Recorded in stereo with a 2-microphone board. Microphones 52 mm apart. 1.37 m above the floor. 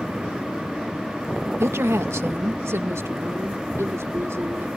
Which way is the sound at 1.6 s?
60° right (ahead or behind).